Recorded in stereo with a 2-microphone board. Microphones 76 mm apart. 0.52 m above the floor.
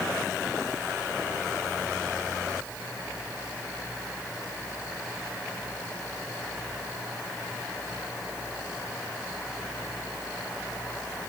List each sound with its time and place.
Only background noise.